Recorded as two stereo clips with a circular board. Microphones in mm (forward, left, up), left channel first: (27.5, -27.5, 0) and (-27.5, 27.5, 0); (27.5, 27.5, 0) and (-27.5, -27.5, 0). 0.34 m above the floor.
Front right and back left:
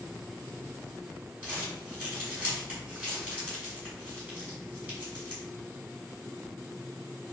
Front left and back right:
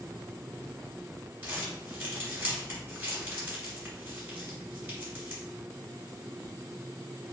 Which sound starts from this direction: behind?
Crumpling, at 1.4 s.